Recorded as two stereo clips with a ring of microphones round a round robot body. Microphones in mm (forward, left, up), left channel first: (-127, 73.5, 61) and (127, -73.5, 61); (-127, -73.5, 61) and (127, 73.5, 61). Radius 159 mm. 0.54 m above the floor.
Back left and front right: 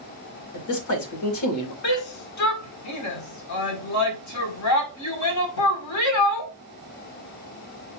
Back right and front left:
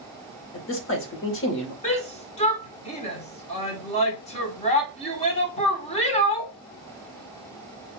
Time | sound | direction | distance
0.5 | a man speaking | 170° left | 2 m
1.8 | a shout | 145° left | 2 m